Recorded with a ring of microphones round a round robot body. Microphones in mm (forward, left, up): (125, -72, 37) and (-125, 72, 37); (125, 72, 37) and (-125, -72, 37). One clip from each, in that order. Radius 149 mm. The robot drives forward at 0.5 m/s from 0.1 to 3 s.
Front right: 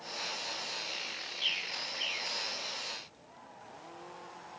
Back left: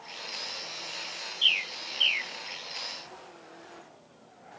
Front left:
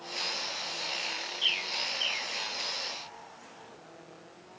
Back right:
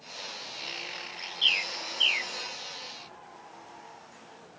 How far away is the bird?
About 0.7 m.